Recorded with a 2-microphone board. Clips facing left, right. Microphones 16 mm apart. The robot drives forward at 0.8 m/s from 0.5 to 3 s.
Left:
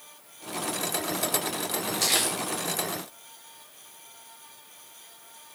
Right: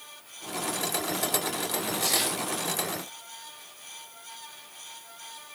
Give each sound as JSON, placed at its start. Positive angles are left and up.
{"t": 2.0, "sound": "crumpling", "side_deg": 85, "distance_m": 8.5}